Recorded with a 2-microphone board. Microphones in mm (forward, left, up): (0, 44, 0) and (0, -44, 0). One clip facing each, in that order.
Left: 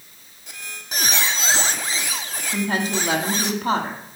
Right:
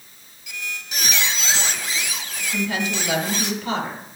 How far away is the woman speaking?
About 1.5 m.